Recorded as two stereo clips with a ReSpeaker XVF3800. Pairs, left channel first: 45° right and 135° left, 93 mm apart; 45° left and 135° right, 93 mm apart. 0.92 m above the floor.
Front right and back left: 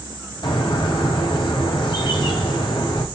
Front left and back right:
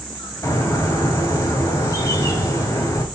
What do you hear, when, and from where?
0.4 s a bird: 10° right, 2 m